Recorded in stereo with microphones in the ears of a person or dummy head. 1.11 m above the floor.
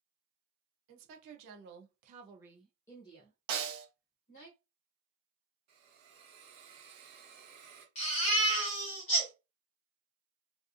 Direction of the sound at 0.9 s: 80° right.